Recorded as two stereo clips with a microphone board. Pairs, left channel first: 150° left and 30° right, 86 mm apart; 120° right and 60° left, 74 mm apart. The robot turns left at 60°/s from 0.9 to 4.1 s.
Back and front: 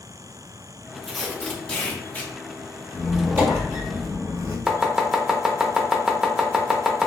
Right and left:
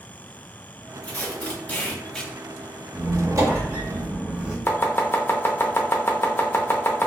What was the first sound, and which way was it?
Tape being pulled, 110° right.